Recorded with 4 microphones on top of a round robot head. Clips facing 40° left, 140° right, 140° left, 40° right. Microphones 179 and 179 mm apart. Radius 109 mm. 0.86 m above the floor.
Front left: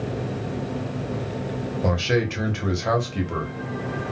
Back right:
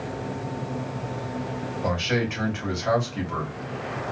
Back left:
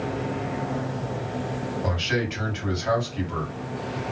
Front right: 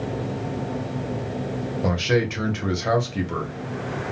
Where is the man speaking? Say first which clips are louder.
Front left 3 dB, front right 7 dB; 5° right, 2 m.